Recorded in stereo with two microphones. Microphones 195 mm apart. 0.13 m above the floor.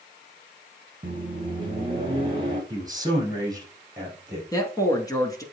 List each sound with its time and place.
1.0 s a microwave: 25° right (ahead or behind), 3 m
2.7 s a man speaking: 20° right (ahead or behind), 4 m
4.5 s a man speaking: 15° left (ahead or behind), 1.4 m